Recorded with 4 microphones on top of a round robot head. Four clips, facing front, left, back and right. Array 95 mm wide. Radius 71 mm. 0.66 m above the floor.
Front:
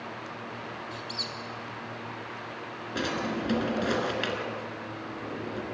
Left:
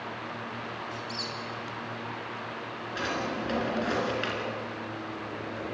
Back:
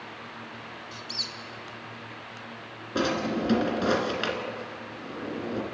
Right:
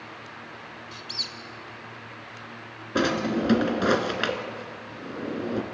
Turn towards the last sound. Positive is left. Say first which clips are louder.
# right 8 dB, back 4 dB
turn(degrees=-105)